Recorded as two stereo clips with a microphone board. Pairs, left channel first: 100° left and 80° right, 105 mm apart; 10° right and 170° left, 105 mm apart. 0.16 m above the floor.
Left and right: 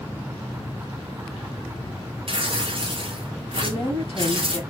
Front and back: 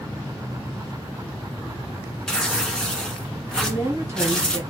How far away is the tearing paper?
About 1.0 m.